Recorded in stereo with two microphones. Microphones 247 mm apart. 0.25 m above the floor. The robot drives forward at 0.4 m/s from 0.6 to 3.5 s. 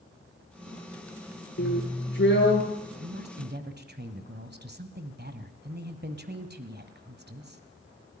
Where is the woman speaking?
40° right (ahead or behind), 1.5 m.